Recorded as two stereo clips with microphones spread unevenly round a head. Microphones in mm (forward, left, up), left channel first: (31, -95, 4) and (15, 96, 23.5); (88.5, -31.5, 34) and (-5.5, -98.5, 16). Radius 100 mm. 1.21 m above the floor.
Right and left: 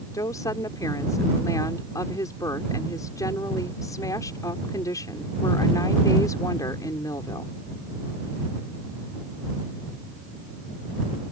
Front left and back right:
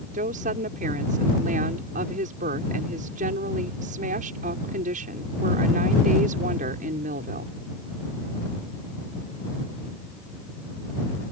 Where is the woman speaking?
160° right.